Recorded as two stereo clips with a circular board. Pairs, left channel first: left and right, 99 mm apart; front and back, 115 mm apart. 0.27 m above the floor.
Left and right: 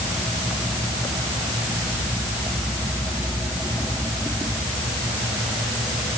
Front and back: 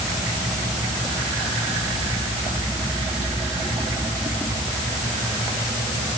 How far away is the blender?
No blender in this recording.